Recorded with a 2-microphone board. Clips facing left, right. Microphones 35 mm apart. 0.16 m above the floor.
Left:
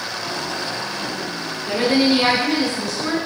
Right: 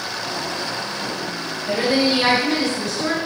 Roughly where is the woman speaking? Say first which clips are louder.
Left 2 dB; left.